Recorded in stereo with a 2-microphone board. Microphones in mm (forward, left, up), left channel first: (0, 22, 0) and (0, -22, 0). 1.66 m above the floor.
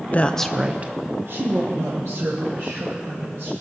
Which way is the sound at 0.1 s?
35° left (ahead or behind).